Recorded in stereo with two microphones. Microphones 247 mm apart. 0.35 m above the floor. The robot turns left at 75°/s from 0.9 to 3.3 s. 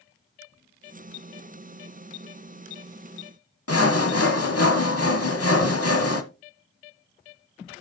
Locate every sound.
3.7 s sawing: 70° left (ahead or behind), 1.3 m